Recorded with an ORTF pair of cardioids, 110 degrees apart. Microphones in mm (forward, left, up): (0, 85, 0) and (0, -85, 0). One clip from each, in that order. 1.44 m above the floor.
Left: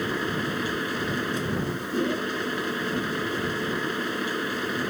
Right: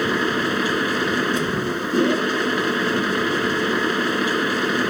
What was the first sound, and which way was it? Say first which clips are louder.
A machine running: right 7 dB; 50° right.